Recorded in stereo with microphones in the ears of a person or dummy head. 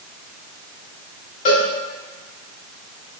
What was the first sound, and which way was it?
A cowbell, 30° left (ahead or behind).